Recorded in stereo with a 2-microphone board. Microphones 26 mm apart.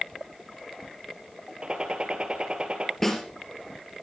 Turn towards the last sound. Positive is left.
turn(degrees=15)  # may be behind; listen again after turning